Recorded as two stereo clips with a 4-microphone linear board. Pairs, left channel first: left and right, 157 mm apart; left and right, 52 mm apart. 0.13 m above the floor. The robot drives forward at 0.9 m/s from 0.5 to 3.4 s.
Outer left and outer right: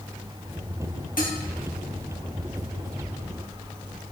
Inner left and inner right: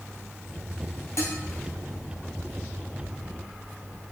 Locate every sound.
1.2 s dishes clattering: 60° left (ahead or behind), 2.5 m; by 1.4 s 65° left (ahead or behind), 2.5 m